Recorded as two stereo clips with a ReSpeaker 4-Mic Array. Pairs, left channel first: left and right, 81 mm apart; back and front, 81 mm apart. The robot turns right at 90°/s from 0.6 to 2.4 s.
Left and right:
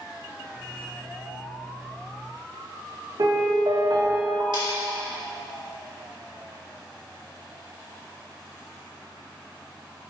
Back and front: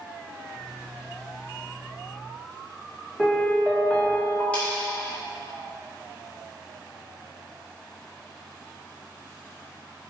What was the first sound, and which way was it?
A piano, 105° right.